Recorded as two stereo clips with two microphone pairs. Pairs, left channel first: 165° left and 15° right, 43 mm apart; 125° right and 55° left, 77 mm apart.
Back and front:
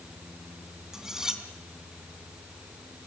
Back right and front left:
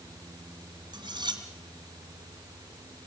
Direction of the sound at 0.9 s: 60° left.